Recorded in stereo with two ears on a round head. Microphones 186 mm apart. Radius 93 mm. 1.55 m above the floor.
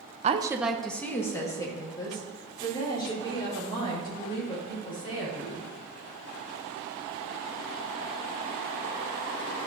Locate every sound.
0.2 s a woman speaking: 30° right (ahead or behind), 0.5 m; by 5.7 s 25° left (ahead or behind), 6.5 m